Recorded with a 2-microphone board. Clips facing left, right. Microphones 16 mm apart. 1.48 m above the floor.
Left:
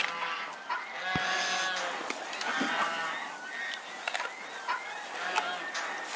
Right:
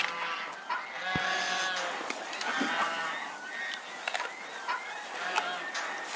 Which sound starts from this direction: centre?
A hiss, at 1.1 s.